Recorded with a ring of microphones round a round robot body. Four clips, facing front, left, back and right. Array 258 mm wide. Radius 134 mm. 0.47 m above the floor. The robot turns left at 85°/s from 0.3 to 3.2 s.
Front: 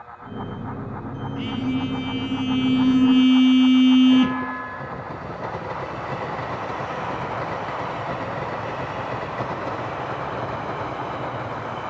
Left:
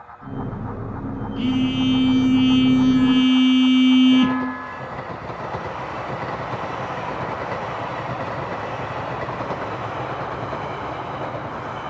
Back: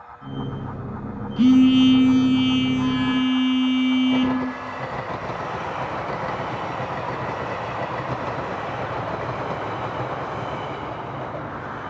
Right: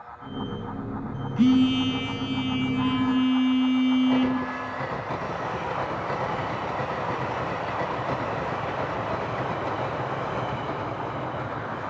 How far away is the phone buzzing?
About 1.9 m.